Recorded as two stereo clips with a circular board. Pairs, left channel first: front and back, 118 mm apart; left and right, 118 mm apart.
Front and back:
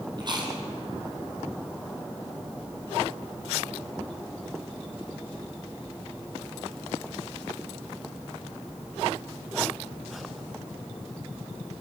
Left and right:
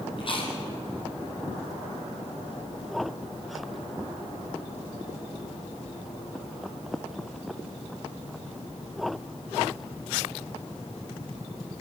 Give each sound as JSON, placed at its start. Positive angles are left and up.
{"t": 0.2, "sound": "chewing", "azimuth_deg": 130, "distance_m": 4.0}